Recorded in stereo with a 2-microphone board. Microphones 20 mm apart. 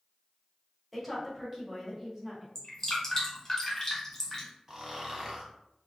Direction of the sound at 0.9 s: Centre (ahead or behind).